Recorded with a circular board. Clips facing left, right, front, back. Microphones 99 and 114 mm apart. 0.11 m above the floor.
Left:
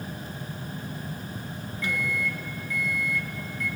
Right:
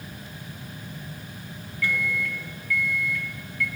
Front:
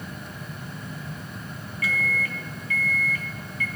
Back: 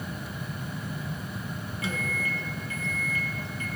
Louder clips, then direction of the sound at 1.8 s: Right 2 dB, front 4 dB; 140° left.